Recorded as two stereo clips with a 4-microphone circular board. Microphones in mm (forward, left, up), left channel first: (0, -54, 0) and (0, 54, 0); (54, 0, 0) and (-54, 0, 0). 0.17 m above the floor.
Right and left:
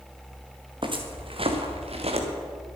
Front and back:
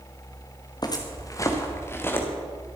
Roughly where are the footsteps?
Ahead left.